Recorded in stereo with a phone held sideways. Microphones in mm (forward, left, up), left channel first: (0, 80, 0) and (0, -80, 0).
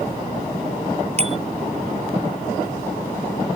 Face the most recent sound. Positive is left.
turn(degrees=-40)  # may be behind; listen again after turning